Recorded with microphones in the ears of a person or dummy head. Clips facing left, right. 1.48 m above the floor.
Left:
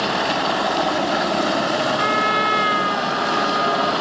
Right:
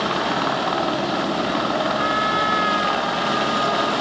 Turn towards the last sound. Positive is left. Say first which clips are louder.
# left 1 dB
turn(degrees=45)  # may be behind; listen again after turning